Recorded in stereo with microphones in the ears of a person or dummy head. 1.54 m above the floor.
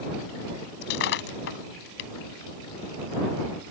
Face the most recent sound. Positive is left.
turn(degrees=60)  # may be behind; listen again after turning